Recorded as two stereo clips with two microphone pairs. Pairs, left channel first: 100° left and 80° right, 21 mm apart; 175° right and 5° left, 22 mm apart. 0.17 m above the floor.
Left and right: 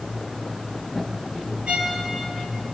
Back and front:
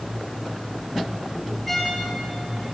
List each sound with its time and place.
1.7 s a violin: 90° right, 3.5 m